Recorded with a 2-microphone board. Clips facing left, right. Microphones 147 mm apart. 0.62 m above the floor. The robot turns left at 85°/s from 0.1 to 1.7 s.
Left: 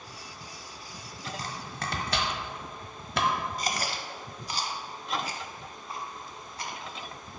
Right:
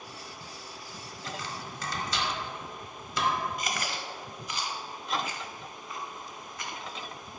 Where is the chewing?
35° left (ahead or behind), 0.7 m.